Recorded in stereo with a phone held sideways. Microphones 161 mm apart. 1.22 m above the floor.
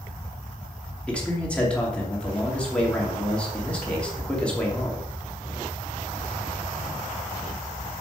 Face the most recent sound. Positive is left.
turn(degrees=10)  # may be behind; listen again after turning